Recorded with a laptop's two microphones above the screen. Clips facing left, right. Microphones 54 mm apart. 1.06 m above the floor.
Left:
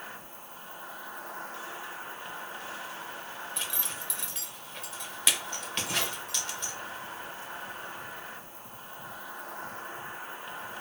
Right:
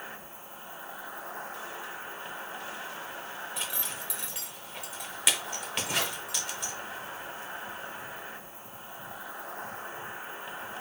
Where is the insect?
10° right (ahead or behind), 1.1 m.